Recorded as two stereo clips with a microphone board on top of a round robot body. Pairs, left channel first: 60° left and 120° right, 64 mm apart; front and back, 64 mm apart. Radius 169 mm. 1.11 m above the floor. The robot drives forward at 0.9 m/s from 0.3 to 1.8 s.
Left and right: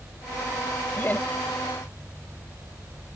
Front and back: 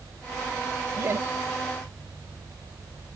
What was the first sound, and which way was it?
Laughter, 125° left.